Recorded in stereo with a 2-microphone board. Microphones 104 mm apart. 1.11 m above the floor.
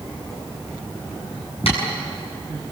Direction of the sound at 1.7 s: 65° left (ahead or behind).